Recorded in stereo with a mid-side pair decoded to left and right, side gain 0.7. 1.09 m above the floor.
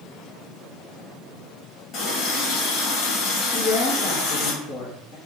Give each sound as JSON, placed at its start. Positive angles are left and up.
{"t": 1.9, "sound": "a running tap", "azimuth_deg": 60, "distance_m": 1.0}
{"t": 3.5, "sound": "a woman speaking", "azimuth_deg": 60, "distance_m": 1.2}